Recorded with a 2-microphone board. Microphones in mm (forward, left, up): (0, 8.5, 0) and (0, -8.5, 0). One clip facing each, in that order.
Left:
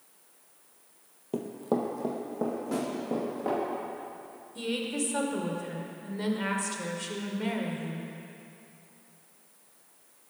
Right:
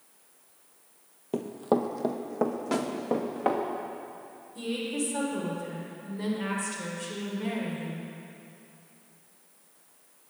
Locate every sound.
1.3 s running footsteps: 20° right (ahead or behind), 0.6 m; by 3.6 s 45° right (ahead or behind), 2 m
2.7 s a snare drum: 55° right (ahead or behind), 0.9 m
4.5 s a woman speaking: 25° left (ahead or behind), 1.4 m